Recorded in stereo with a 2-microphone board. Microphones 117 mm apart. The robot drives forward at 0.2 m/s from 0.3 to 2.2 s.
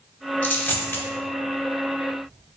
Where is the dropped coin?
15° left (ahead or behind), 0.7 m; by 1.1 s 20° left (ahead or behind), 0.6 m.